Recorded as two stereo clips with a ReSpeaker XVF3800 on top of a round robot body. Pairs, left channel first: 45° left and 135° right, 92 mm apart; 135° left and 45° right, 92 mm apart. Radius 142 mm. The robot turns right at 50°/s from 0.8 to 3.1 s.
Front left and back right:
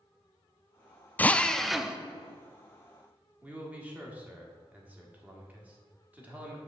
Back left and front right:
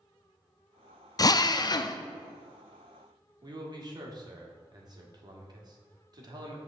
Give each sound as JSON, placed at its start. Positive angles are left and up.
{"t": 1.2, "sound": "a drill", "azimuth_deg": 110, "distance_m": 0.5}
{"t": 3.4, "sound": "a man speaking", "azimuth_deg": -65, "distance_m": 1.6}